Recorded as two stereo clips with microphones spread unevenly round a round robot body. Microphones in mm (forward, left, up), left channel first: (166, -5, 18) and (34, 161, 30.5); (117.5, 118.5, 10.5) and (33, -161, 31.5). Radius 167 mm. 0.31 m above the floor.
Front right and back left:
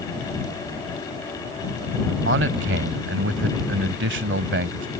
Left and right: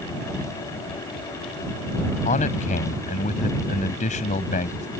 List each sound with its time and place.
2.2 s a man speaking: 135° left